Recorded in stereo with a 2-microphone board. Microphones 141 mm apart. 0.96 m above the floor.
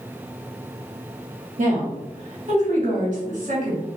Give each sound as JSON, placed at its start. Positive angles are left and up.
{"t": 1.6, "sound": "a woman speaking", "side_deg": -50, "distance_m": 1.6}